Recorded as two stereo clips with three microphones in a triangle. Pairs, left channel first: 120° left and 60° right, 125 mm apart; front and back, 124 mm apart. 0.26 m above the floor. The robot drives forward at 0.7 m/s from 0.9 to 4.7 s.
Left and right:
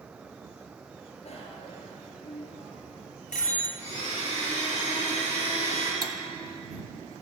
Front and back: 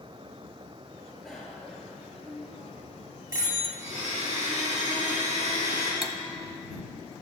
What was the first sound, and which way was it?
A bicycle bell, 90° left.